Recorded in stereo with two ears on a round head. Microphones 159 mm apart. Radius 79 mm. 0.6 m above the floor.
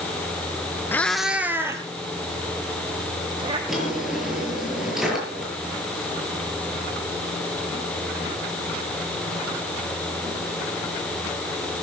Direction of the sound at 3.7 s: 5° right (ahead or behind).